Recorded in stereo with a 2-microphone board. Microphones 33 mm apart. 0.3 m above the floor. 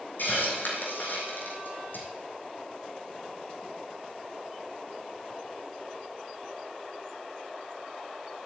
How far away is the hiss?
About 3.5 m.